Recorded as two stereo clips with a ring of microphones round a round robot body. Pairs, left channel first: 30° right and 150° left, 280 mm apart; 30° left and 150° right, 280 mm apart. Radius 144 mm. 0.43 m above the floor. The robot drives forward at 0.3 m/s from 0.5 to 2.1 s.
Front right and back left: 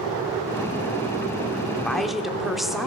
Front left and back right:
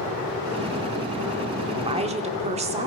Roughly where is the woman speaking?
Right.